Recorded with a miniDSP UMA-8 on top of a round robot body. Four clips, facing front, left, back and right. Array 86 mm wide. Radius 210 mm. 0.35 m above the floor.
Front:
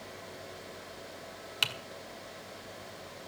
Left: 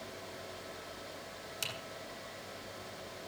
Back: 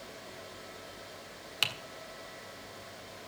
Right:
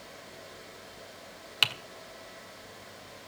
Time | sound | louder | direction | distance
1.6 | typing on a keyboard | right 13 dB, even | 90° right | 1.7 m